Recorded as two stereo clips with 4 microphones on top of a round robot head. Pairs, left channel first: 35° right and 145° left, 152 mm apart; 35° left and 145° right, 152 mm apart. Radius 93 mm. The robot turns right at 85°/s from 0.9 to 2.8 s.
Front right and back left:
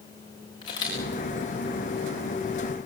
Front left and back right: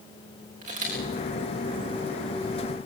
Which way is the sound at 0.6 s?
100° right.